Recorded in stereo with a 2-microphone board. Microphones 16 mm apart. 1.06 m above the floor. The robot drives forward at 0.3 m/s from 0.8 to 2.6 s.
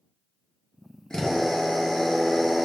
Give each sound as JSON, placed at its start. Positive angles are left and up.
{"t": 1.1, "sound": "a drill", "side_deg": 55, "distance_m": 0.8}